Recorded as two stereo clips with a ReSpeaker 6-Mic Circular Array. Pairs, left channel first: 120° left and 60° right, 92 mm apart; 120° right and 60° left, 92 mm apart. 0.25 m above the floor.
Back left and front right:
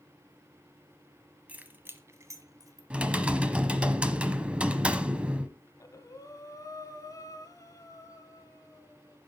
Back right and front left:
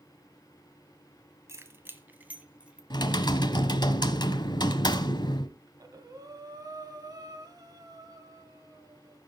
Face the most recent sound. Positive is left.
turn(degrees=85)